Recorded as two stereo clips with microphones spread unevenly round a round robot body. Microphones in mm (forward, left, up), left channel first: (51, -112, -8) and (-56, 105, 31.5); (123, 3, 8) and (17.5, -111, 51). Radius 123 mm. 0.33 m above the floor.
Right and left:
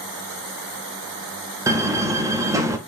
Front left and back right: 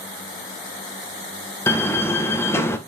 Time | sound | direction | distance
1.7 | a door slam | 35° left | 0.6 m